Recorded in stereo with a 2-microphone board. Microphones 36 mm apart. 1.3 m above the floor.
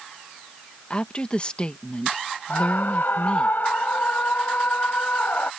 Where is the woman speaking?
30° left (ahead or behind).